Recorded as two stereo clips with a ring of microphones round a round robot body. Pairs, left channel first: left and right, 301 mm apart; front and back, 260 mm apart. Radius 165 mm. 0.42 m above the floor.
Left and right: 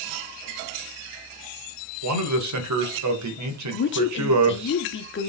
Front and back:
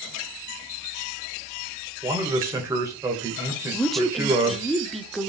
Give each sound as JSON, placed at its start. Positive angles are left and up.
{"t": 2.0, "sound": "a man speaking", "azimuth_deg": -100, "distance_m": 1.9}
{"t": 3.7, "sound": "a woman speaking", "azimuth_deg": 90, "distance_m": 1.3}